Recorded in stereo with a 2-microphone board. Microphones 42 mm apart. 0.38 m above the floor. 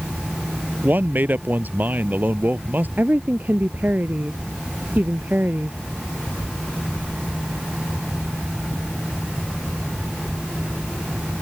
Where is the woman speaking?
50° right (ahead or behind).